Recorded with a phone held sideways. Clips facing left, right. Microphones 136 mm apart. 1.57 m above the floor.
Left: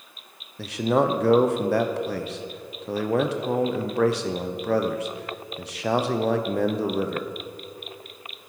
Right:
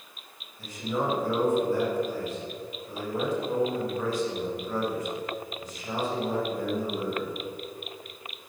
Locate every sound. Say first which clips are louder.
0.6 s a man speaking: left 8 dB; 75° left (ahead or behind), 0.9 m